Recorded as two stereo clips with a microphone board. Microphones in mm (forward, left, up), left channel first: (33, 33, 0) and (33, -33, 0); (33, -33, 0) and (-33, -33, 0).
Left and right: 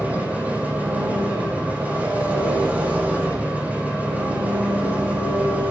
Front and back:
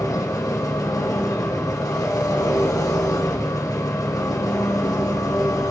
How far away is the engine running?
About 4 m.